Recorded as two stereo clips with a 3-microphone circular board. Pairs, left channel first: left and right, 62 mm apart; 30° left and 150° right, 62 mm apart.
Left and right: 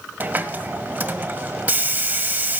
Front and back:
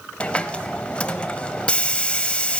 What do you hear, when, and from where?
0.2 s a hiss: 35° right, 0.6 m